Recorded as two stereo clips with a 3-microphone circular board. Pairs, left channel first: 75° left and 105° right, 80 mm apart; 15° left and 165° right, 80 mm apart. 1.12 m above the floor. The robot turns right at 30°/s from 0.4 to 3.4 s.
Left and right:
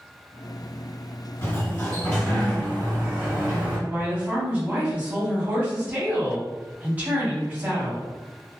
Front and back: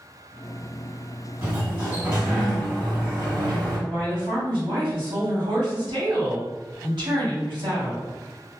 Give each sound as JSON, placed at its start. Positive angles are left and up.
{"t": 1.4, "sound": "a sliding door", "azimuth_deg": 130, "distance_m": 1.8}
{"t": 3.9, "sound": "a woman speaking", "azimuth_deg": -175, "distance_m": 1.5}